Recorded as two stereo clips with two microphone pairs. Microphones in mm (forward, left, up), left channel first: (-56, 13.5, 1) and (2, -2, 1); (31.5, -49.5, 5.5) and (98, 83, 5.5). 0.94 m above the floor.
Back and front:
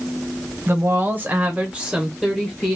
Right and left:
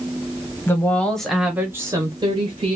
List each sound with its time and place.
0.7 s a woman speaking: 45° right, 0.9 m; by 2.8 s 85° left, 1.0 m